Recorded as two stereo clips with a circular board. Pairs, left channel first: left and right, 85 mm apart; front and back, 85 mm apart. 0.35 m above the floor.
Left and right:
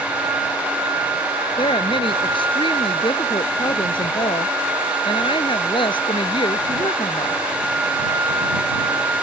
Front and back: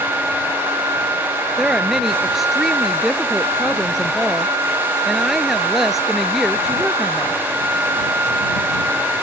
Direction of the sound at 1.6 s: 95° left.